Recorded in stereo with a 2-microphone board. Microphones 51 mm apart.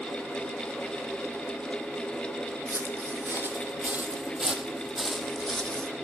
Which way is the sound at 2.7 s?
60° right (ahead or behind).